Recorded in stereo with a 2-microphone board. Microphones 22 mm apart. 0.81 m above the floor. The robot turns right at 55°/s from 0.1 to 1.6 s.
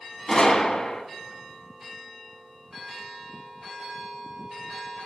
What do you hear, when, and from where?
0.3 s a gunshot: 35° left, 0.9 m; by 1.0 s 75° left, 0.9 m